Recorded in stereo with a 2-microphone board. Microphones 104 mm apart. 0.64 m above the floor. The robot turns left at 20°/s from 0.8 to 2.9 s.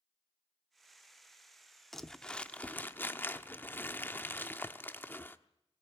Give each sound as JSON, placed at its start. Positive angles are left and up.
{"t": 1.9, "sound": "crumpling", "side_deg": 0, "distance_m": 0.9}